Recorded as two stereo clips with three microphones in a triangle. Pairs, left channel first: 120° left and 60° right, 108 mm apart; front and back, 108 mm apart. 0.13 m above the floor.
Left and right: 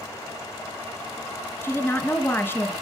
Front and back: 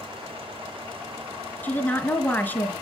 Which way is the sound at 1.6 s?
60° left.